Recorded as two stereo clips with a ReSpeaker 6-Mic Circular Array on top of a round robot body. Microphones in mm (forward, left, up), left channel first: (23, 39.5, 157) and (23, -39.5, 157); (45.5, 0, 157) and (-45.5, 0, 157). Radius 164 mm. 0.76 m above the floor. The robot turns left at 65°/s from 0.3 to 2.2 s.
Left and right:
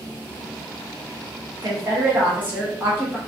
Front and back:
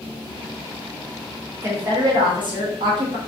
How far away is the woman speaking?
About 1.3 m.